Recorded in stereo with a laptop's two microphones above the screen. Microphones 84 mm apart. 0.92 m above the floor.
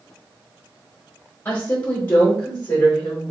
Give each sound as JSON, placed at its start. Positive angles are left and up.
{"t": 1.4, "sound": "a woman speaking", "side_deg": 20, "distance_m": 0.9}